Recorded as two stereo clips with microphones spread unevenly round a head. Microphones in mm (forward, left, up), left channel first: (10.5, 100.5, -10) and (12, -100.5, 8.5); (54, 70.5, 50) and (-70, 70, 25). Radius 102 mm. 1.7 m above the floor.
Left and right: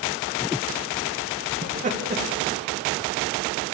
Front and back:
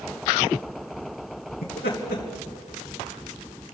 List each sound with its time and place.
1.6 s laughter: 40° right, 1.8 m